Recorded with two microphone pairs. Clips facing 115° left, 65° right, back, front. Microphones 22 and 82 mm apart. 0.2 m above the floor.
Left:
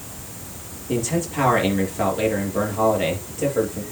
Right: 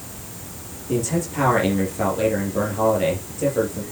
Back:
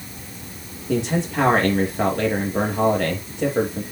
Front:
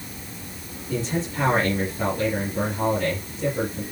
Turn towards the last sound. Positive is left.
turn(degrees=-170)